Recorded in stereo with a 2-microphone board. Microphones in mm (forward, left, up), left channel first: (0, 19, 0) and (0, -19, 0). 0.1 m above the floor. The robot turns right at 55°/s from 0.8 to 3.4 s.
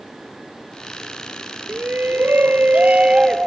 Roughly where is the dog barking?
I don't hear a dog barking.